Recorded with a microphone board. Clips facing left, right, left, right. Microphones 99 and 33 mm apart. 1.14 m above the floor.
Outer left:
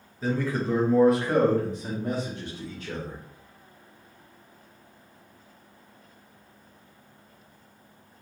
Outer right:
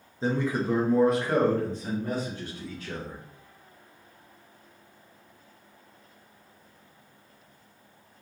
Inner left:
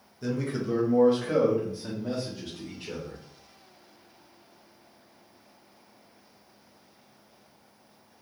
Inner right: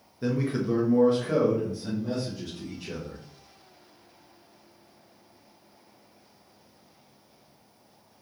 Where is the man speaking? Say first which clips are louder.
Even, inner right 3 dB; 25° right (ahead or behind), 0.7 m; by 3.2 s 25° left (ahead or behind), 1.9 m.